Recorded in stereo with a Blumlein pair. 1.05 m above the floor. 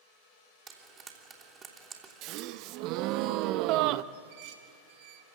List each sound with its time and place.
0.7 s frying: 20° right, 3 m
2.2 s a gasp: 40° right, 0.6 m
4.1 s dishes clattering: 50° right, 3.5 m